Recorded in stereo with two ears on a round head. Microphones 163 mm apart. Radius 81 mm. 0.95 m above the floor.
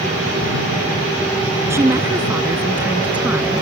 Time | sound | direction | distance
1.7 | a woman speaking | 15° right (ahead or behind) | ?